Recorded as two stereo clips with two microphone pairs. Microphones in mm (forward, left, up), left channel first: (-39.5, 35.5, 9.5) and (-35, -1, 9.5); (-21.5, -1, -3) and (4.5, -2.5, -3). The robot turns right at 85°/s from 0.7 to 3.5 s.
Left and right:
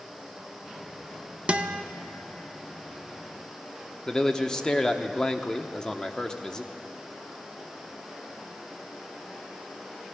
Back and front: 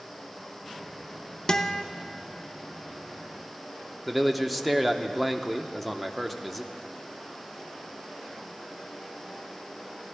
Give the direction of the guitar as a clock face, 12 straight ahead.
4 o'clock.